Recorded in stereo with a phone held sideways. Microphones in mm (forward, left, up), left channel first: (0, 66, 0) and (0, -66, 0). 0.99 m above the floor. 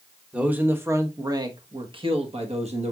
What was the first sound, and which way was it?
A man speaking, 10° right (ahead or behind).